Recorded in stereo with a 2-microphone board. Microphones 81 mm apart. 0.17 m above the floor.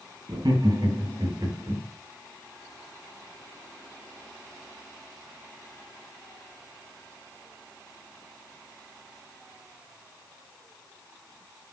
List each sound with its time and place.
0.3 s laughter: 70° right (ahead or behind), 4 m; by 1.8 s 60° right (ahead or behind), 4 m